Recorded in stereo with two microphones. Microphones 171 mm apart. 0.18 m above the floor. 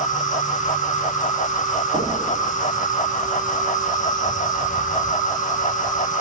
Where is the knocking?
40° right (ahead or behind), 9 m.